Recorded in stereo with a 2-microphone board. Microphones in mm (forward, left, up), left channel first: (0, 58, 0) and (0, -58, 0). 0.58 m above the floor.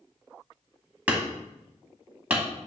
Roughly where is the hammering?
Centre.